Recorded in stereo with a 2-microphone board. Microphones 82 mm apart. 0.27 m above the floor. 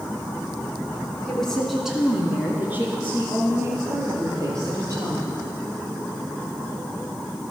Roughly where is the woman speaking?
Centre.